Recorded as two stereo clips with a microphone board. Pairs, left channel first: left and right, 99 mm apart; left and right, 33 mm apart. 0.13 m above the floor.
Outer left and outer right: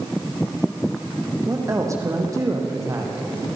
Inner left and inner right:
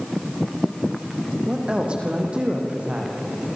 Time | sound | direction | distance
1.5 | a woman speaking | 35° right (ahead or behind) | 5.5 m